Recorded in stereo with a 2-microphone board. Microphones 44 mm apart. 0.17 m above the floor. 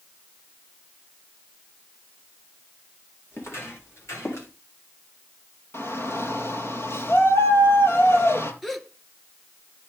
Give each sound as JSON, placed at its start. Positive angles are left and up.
{"t": 3.3, "sound": "footsteps", "side_deg": 65, "distance_m": 7.0}
{"t": 5.7, "sound": "a shout", "side_deg": 60, "distance_m": 4.5}
{"t": 8.6, "sound": "a gasp", "side_deg": 5, "distance_m": 1.2}